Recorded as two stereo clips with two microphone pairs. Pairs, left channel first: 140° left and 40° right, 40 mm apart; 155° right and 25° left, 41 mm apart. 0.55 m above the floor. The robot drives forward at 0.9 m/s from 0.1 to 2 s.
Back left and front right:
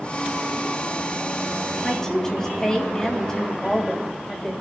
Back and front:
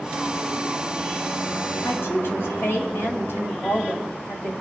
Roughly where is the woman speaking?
Behind right.